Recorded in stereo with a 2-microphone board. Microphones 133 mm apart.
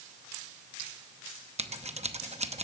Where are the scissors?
55° right (ahead or behind), 0.8 m.